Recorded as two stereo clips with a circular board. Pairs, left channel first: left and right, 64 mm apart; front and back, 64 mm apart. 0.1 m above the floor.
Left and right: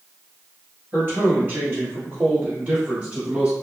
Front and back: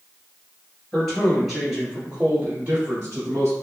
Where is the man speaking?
75° right, 1.6 m; by 3.5 s 150° right, 1.8 m.